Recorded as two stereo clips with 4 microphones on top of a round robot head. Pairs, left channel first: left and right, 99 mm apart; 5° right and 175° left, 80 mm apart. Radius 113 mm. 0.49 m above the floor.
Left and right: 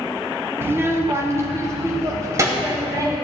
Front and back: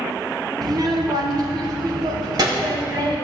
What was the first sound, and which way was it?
A child speaking, 155° right.